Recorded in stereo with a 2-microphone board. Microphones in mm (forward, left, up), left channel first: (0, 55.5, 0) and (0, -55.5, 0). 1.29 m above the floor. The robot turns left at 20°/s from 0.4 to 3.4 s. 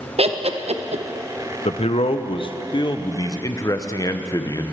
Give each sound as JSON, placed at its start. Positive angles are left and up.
{"t": 0.2, "sound": "laughter", "side_deg": -65, "distance_m": 0.8}
{"t": 1.6, "sound": "a man speaking", "azimuth_deg": 70, "distance_m": 0.6}